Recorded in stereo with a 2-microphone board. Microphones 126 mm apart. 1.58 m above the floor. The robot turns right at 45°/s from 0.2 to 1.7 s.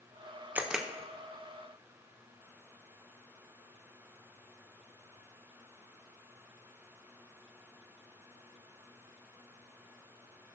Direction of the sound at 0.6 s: 15° right (ahead or behind).